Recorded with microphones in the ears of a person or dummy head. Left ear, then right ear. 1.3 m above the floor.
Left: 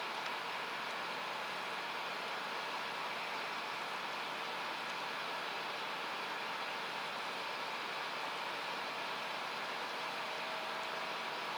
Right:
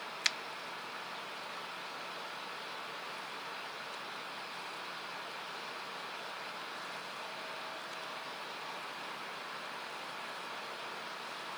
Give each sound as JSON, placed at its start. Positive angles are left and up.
{"t": 0.2, "sound": "a finger snap", "side_deg": -70}